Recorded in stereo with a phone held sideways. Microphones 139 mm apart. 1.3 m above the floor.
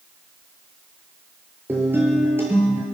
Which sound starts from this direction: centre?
A guitar, at 1.7 s.